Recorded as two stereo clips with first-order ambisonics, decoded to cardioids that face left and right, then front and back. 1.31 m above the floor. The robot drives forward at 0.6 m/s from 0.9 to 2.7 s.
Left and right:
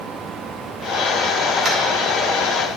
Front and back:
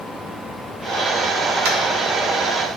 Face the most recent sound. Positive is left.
turn(degrees=-165)